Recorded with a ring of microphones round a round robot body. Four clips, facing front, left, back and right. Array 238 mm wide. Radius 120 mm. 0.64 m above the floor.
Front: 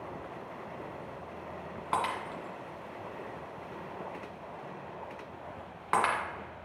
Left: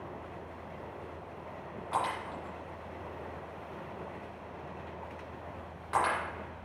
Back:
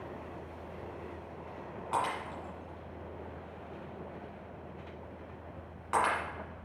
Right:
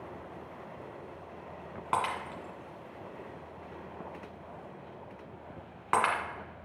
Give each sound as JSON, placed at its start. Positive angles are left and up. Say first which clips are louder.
{"t": 1.9, "sound": "breaking glass", "louder": "right 2 dB, front 1 dB", "azimuth_deg": -60, "distance_m": 2.0}